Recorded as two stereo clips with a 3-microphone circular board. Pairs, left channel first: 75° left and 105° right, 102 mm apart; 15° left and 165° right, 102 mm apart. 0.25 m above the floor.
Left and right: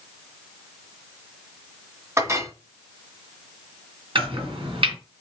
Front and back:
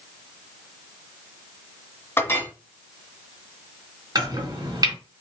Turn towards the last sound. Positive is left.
turn(degrees=-120)